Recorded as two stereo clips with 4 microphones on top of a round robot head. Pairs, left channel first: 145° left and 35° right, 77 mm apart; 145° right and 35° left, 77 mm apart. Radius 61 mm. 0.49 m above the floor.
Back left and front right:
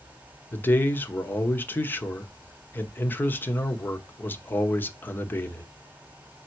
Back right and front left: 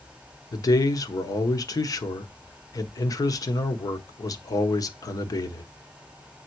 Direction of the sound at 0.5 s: 155° right.